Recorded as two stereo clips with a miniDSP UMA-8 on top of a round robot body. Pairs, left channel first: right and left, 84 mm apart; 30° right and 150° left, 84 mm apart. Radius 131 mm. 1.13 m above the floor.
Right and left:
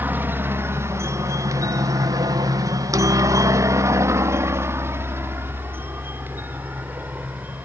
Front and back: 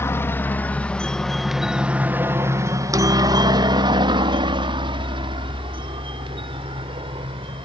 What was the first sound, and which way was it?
A helicopter, 25° left.